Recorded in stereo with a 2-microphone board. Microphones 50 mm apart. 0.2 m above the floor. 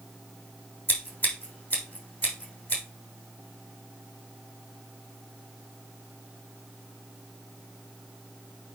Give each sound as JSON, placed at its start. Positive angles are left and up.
{"t": 0.9, "sound": "scissors", "side_deg": 30, "distance_m": 3.5}